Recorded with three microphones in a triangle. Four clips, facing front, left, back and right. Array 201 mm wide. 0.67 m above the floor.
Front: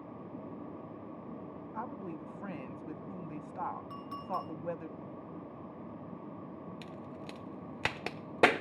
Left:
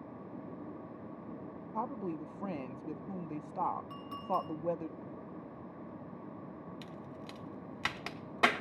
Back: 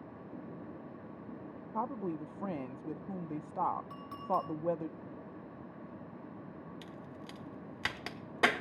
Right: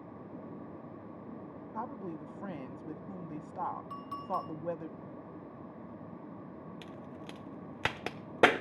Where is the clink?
90° right, 6 m.